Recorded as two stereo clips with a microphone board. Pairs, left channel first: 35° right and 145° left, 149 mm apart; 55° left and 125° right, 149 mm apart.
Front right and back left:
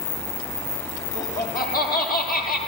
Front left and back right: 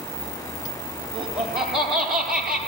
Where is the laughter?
35° right, 7 m; by 2.6 s 40° right, 5.5 m.